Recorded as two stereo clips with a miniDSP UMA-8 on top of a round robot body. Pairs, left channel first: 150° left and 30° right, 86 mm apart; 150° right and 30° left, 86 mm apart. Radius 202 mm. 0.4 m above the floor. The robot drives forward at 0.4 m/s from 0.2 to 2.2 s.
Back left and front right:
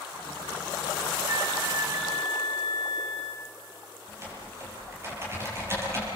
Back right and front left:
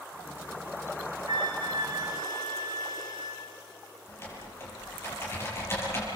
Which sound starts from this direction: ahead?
A flute, at 1.3 s.